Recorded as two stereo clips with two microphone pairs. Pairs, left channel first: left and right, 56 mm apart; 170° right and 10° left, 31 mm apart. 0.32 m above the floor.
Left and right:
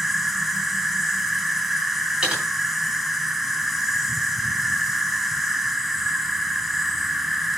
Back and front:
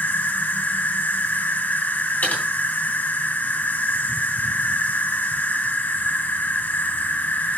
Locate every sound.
0.0 s an insect: straight behind, 1.0 m
2.2 s typing on a keyboard: 160° right, 3 m